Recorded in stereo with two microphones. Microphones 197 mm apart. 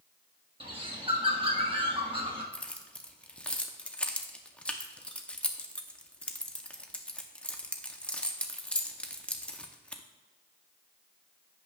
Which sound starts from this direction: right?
A bird, at 0.6 s.